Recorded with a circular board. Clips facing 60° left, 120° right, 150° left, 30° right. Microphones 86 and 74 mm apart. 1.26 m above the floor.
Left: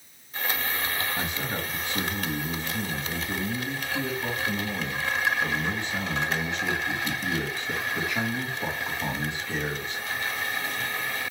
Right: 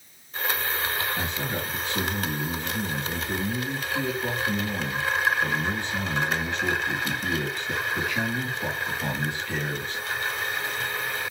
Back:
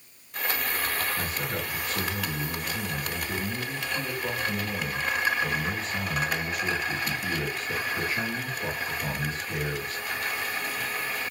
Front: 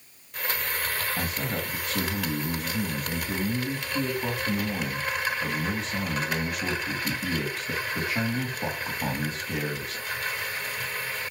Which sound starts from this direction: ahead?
A man speaking, at 1.2 s.